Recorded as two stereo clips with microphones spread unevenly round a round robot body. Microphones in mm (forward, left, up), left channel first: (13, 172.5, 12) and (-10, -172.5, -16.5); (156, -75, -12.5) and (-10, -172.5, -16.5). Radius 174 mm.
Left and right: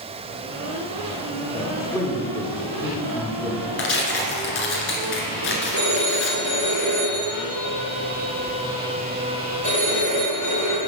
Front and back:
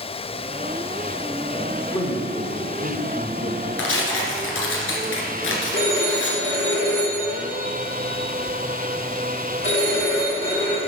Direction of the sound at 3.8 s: 30° left.